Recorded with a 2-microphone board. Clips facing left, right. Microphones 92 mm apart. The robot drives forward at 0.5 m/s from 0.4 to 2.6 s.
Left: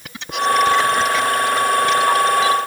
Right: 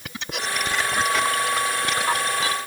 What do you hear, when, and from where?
Only background noise.